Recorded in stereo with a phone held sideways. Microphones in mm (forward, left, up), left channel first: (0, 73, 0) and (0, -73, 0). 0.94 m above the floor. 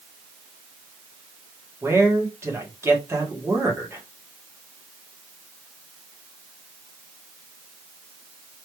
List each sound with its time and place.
1.8 s a man speaking: 15° right (ahead or behind), 1.7 m